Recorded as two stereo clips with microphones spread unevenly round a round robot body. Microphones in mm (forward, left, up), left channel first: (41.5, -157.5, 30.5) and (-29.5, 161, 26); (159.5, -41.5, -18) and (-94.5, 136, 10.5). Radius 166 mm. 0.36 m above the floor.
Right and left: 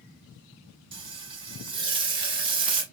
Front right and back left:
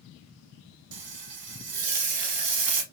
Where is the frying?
Straight behind, 0.8 m.